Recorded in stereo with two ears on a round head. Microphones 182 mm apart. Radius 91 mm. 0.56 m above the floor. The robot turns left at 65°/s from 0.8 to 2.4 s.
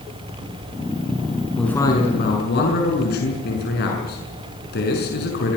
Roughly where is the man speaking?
Behind.